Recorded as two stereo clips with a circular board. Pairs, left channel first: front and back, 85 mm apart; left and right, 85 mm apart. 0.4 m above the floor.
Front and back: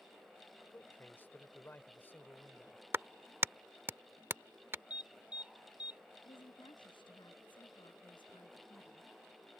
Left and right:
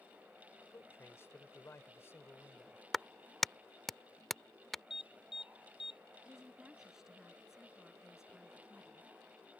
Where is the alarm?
105° left.